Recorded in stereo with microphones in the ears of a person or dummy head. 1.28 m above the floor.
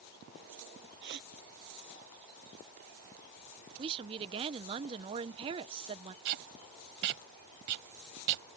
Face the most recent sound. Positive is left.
turn(degrees=-60)  # may be behind; listen again after turning